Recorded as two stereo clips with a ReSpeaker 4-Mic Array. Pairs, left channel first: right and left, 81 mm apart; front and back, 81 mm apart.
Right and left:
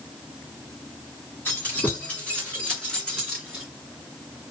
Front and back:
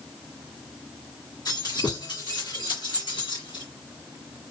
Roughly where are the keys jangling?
Ahead right.